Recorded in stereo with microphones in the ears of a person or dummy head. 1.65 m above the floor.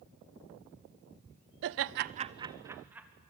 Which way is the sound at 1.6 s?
65° right (ahead or behind).